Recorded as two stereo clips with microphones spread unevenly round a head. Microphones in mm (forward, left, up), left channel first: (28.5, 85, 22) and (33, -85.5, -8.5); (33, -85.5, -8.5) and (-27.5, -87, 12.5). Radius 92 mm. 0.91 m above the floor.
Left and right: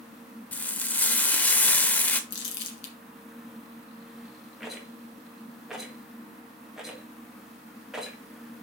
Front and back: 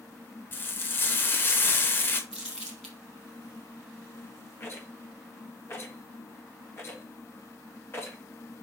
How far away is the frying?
About 0.6 m.